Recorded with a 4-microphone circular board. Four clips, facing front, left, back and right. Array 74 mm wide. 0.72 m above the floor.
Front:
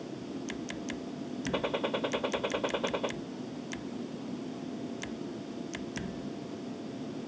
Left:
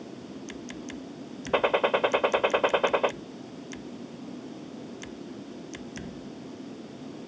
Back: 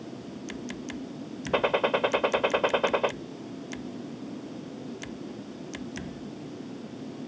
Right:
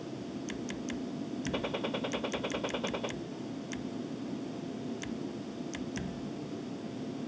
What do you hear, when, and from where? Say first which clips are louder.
1.5 s a gunshot: left 14 dB, back 8 dB; 115° left